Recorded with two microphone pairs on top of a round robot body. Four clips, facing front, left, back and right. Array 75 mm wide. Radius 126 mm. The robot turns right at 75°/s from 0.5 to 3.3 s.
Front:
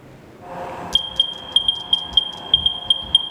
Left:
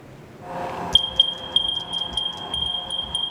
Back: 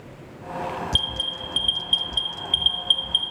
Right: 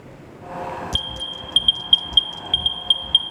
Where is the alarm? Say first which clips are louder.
Left 5 dB, front 3 dB; 150° right, 0.5 m; by 3.3 s 25° left, 0.5 m.